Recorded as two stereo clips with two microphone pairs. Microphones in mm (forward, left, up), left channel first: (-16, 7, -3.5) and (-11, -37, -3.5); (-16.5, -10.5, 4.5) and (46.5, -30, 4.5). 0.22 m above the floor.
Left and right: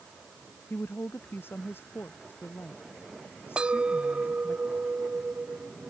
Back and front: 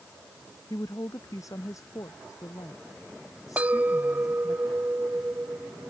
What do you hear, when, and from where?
0.7 s a woman speaking: 130° left
3.6 s a clink: 50° right